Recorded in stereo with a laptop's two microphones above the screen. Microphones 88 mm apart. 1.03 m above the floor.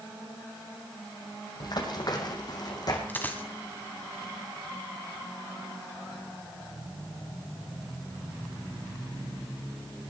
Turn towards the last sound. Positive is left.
turn(degrees=20)  # may be behind; listen again after turning